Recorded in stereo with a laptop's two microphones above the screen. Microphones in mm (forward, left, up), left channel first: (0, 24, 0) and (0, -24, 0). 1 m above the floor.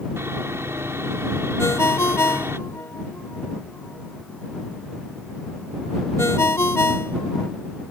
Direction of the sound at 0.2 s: 60° right (ahead or behind).